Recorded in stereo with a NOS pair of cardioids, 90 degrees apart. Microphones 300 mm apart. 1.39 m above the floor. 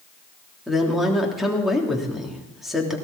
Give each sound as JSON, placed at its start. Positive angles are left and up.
{"t": 0.7, "sound": "a woman speaking", "azimuth_deg": 0, "distance_m": 3.5}